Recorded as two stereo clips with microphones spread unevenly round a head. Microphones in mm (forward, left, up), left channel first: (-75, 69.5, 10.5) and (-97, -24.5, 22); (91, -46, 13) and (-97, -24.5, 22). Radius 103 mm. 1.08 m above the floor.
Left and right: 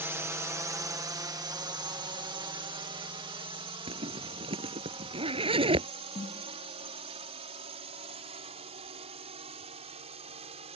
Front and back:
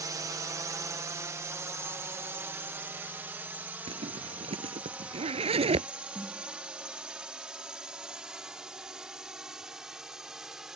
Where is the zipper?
125° right.